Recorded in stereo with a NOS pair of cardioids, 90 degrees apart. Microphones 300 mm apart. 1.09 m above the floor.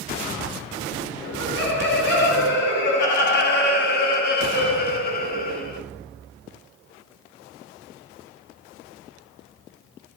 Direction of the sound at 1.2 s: 40° left.